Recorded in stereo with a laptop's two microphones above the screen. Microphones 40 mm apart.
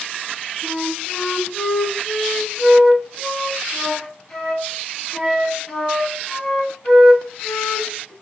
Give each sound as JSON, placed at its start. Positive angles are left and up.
{"t": 0.6, "sound": "a flute", "side_deg": 40, "distance_m": 4.5}